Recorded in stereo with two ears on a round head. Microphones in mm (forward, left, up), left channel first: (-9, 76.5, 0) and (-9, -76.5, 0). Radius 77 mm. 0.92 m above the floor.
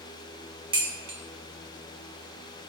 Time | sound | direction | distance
0.7 | dishes clattering | 30° right (ahead or behind) | 1.2 m